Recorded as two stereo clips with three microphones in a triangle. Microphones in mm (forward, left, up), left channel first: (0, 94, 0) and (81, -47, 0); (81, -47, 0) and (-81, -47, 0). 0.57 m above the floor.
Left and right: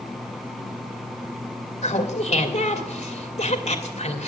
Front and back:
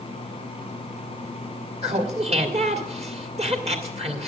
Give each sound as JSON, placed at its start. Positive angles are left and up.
{"t": 1.8, "sound": "laughter", "azimuth_deg": 150, "distance_m": 1.7}